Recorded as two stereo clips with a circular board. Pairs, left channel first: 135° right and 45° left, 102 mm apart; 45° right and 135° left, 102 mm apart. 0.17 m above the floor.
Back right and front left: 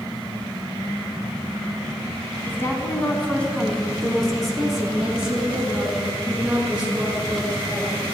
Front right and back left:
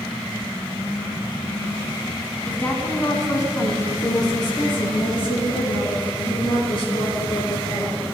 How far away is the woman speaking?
About 1.3 m.